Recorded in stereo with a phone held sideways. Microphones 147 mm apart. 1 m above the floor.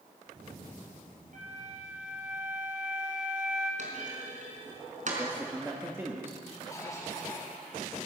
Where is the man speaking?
15° right (ahead or behind), 2.0 m.